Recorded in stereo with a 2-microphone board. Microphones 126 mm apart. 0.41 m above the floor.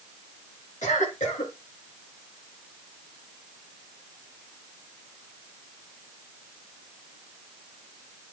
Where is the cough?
75° left (ahead or behind), 6.5 m.